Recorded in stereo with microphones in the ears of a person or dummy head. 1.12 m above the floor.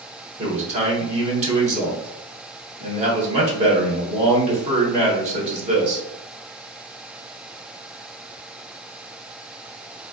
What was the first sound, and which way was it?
A man speaking, 40° right (ahead or behind).